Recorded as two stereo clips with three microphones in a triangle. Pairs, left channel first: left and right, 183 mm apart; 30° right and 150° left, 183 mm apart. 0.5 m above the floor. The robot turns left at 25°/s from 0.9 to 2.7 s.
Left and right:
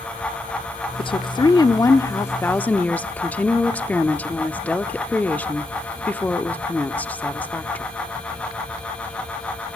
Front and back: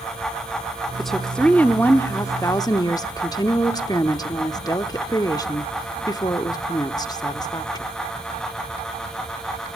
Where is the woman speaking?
60° left, 0.7 m; by 7.8 s 15° left, 0.7 m.